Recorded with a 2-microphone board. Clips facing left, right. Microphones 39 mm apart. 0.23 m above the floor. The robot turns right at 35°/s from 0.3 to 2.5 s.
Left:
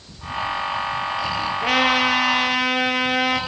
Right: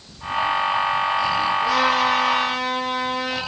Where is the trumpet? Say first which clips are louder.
Left 3 dB; 60° left, 4.5 m; by 3.4 s 90° left, 4.5 m.